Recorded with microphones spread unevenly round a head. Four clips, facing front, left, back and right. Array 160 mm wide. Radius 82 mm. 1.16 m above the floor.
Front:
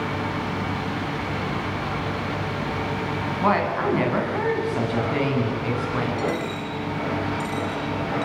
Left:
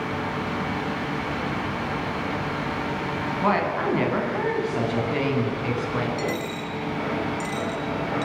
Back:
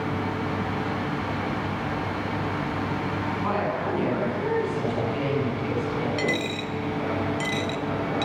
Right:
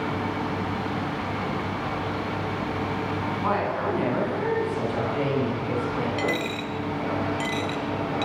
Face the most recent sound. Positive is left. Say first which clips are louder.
# right 1 dB, front 1 dB
turn(degrees=-155)